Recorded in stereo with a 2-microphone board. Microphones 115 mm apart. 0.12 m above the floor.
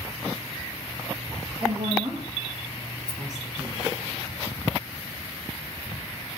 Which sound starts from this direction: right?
A woman speaking, at 1.6 s.